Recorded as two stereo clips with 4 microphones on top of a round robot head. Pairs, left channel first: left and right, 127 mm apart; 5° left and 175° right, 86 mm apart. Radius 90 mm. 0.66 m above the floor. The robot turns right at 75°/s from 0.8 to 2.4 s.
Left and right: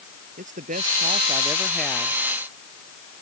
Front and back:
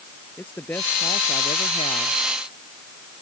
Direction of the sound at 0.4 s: 70° right.